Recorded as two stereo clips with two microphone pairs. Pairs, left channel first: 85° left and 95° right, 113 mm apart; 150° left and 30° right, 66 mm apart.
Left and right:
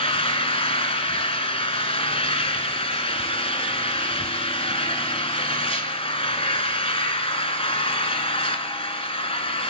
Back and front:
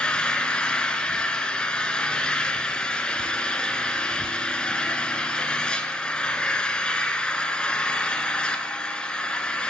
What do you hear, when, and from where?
0.0 s an engine running: 80° left, 1.0 m